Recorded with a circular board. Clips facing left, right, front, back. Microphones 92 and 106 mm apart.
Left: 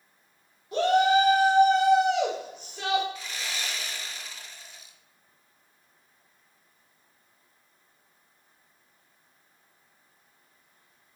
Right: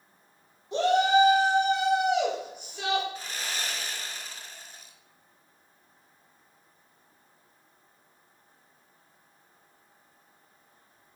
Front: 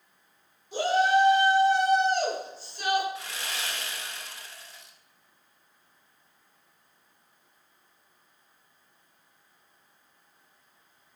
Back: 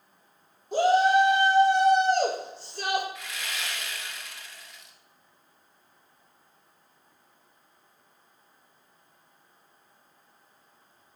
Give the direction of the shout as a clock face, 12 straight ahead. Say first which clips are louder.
Left 1 dB, back 3 dB; 5 o'clock.